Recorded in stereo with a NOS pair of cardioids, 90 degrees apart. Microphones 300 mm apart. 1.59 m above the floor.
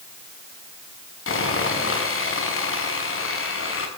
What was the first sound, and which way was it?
Sawing, 45° left.